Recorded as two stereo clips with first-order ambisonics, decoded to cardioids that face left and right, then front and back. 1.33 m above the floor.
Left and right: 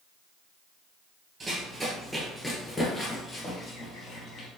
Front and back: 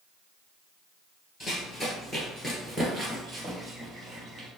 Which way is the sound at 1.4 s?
50° right.